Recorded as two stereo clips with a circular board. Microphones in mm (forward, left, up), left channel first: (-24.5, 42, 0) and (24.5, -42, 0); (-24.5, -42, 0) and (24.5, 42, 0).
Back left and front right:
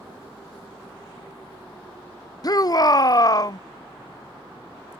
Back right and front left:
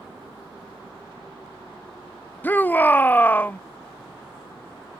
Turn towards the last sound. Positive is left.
turn(degrees=170)